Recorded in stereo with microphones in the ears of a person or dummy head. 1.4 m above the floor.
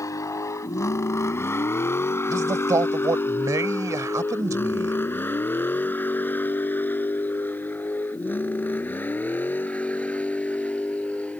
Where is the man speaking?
20° right (ahead or behind).